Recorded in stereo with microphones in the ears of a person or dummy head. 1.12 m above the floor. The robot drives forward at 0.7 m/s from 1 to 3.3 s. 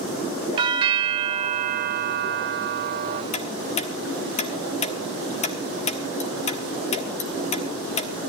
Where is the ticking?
35° left (ahead or behind), 1.2 m.